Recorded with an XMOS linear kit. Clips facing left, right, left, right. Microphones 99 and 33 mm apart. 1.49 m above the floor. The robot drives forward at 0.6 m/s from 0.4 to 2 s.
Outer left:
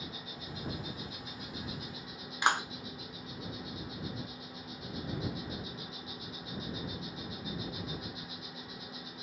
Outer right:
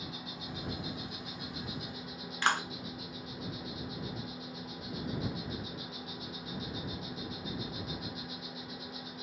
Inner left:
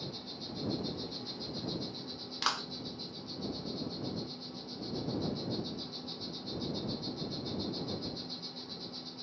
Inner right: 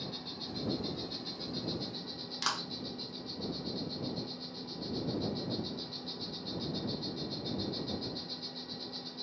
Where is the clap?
15° left (ahead or behind), 0.7 m.